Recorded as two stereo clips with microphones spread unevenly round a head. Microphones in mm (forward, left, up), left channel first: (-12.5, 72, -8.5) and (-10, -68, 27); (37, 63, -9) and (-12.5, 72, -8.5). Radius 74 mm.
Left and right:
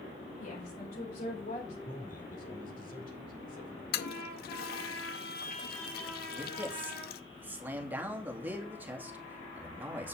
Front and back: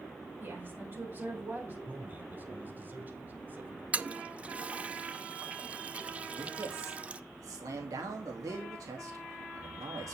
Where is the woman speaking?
125° left, 7 m; by 1.8 s 120° left, 5 m.